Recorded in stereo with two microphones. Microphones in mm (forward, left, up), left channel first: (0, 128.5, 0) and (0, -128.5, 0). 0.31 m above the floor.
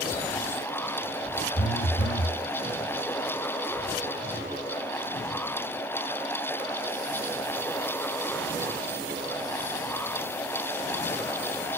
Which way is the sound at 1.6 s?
45° left (ahead or behind).